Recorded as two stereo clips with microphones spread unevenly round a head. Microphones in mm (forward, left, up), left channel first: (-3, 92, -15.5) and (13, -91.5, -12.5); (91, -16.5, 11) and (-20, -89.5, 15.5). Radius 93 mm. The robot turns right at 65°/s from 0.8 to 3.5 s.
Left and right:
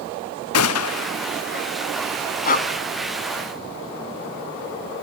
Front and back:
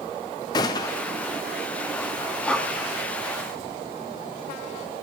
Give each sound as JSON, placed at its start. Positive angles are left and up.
{"t": 0.5, "sound": "a gunshot", "azimuth_deg": 105, "distance_m": 0.7}
{"t": 2.5, "sound": "breathing", "azimuth_deg": 115, "distance_m": 1.0}